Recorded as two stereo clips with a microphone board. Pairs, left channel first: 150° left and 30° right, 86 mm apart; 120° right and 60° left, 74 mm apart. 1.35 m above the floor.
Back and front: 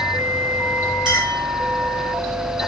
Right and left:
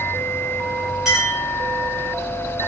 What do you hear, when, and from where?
1.1 s a clink: 25° right, 2 m